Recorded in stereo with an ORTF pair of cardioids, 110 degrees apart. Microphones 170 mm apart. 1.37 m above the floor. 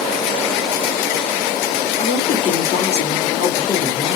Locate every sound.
2.0 s a woman speaking: 40° left, 2.5 m